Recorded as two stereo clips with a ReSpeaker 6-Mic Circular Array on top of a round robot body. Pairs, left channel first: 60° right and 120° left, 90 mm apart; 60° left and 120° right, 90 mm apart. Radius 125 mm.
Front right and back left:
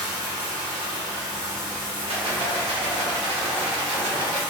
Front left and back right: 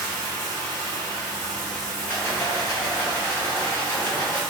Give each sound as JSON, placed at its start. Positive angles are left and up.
{"t": 0.0, "sound": "running water", "azimuth_deg": -85, "distance_m": 0.8}
{"t": 2.1, "sound": "a rattle", "azimuth_deg": 125, "distance_m": 0.9}